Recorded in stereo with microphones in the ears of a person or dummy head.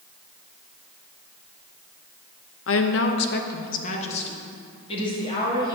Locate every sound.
2.7 s a woman speaking: 65° left (ahead or behind), 0.8 m; by 5.8 s 25° left (ahead or behind), 2.5 m